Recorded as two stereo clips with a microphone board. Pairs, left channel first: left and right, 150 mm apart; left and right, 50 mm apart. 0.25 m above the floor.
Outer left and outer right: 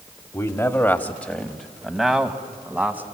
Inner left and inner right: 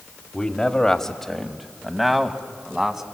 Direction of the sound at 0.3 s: 20° left (ahead or behind).